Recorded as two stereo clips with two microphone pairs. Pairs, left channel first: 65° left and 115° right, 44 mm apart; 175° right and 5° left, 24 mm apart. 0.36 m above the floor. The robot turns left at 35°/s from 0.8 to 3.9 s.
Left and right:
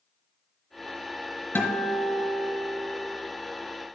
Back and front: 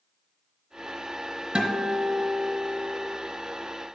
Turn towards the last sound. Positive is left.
turn(degrees=-30)